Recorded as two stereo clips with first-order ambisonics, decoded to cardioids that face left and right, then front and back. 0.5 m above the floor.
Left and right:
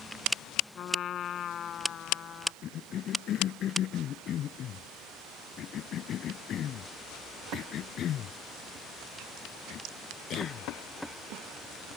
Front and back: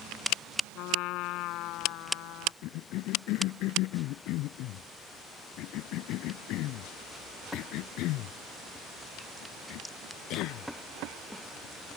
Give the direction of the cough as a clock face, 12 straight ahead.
11 o'clock.